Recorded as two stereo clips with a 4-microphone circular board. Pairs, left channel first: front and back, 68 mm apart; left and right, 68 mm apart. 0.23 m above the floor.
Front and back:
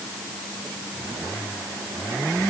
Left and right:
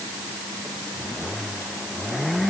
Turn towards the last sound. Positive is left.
No sound to turn to.